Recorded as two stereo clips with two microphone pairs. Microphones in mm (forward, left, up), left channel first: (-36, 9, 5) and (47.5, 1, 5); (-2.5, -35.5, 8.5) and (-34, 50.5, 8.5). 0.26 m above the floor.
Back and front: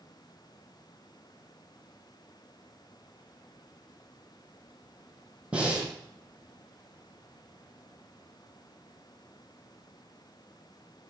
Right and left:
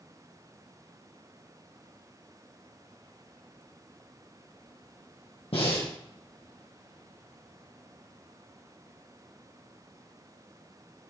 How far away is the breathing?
About 3 m.